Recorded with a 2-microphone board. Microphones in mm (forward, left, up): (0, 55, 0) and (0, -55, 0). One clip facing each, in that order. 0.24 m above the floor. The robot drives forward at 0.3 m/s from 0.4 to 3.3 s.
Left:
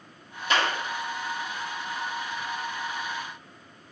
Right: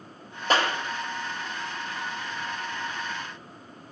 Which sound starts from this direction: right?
A clap, at 0.5 s.